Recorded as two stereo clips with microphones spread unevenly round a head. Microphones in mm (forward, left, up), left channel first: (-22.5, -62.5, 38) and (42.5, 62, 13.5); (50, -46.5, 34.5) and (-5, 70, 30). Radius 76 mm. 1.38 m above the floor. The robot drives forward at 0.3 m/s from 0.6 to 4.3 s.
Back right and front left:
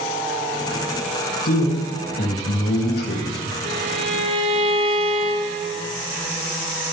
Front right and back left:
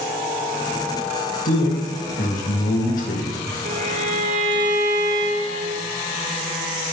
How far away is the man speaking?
About 2.5 m.